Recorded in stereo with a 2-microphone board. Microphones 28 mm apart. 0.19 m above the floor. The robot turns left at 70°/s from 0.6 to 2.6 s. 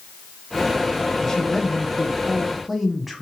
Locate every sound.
1.2 s a man speaking: 20° left (ahead or behind), 1.1 m; by 3.2 s centre (ahead or behind), 1.1 m